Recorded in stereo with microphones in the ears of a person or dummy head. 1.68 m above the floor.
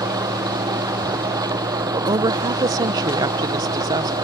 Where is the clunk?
No clunk in this recording.